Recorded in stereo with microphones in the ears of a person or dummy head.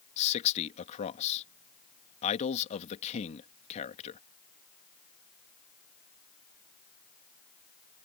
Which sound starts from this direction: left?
A man speaking, at 0.2 s.